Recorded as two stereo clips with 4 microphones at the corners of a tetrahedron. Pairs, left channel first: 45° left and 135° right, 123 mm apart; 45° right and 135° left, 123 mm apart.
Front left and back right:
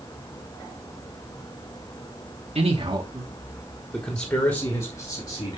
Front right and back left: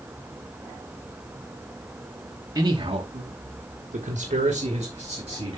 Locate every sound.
2.5 s a man speaking: 165° right, 1.4 m; by 5.6 s 90° left, 3 m